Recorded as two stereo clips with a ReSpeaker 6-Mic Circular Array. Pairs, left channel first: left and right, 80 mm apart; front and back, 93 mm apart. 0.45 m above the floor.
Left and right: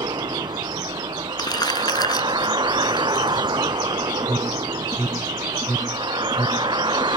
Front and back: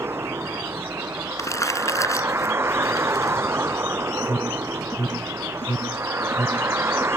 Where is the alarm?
35° left.